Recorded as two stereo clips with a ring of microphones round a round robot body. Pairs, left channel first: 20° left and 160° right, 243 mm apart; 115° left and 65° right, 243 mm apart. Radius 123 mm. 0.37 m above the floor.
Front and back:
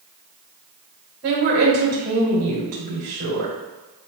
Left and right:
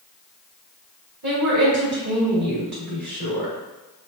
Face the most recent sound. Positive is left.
turn(degrees=-110)